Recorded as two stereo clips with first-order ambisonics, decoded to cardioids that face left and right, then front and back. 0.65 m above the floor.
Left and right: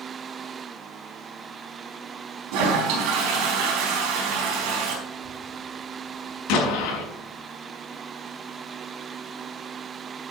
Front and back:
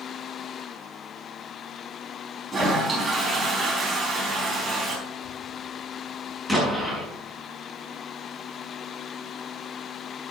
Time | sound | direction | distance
2.5 | a toilet flushing | 105° right | 4 m
5.1 | a child speaking | 60° left | 3.5 m
6.5 | an explosion | 95° left | 5 m